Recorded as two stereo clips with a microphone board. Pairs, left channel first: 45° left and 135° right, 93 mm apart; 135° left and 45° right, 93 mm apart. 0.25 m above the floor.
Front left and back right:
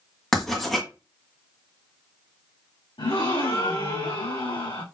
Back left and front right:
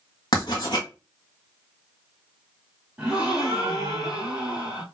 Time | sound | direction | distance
0.3 | writing | 130° left | 1.9 m
3.0 | a gasp | 40° left | 3 m